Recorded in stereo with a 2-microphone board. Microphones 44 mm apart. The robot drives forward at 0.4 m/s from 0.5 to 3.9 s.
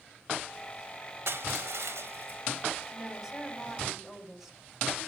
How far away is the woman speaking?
About 4.5 m.